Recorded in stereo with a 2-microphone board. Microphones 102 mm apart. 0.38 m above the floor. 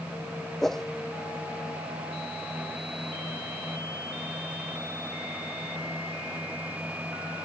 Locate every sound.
0.6 s a whoosh: 5° left (ahead or behind)